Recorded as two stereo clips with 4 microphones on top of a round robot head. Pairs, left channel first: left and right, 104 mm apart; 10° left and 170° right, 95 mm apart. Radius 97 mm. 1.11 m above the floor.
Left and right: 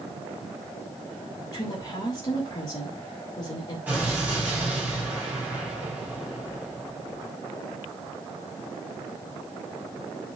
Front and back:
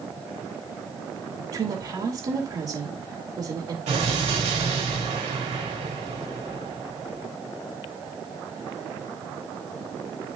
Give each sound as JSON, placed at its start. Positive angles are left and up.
{"t": 1.5, "sound": "a woman speaking", "azimuth_deg": 150, "distance_m": 2.5}
{"t": 3.9, "sound": "an explosion", "azimuth_deg": -165, "distance_m": 3.5}